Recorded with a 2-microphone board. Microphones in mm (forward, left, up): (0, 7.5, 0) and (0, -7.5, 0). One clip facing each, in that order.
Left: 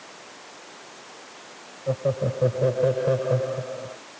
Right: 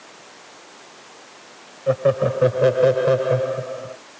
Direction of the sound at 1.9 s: 70° right (ahead or behind).